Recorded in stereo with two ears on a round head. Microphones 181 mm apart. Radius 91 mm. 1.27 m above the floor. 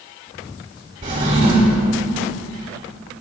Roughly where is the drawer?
Right.